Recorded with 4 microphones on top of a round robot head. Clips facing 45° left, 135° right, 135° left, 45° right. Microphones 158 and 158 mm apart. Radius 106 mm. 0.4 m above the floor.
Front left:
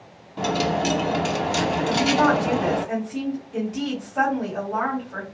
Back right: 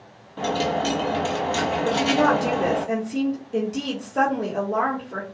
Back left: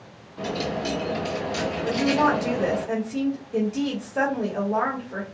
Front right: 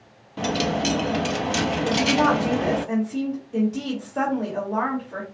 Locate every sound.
0.4 s a dropped coin: 30° right, 0.7 m
1.9 s a woman speaking: 145° right, 1.7 m